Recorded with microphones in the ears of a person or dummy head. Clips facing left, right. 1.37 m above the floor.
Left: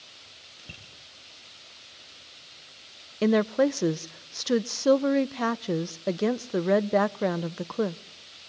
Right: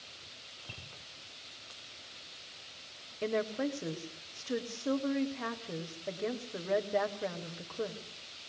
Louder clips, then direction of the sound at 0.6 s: Left 3 dB; 25° left (ahead or behind).